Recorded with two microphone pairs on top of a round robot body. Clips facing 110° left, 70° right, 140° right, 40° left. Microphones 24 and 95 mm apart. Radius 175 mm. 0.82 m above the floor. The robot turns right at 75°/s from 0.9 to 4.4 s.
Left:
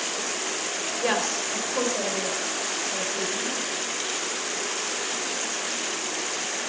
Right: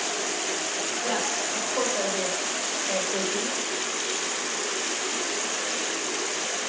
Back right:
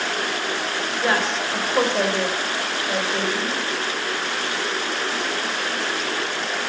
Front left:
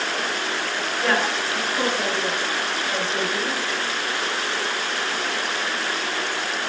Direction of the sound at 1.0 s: 140° left.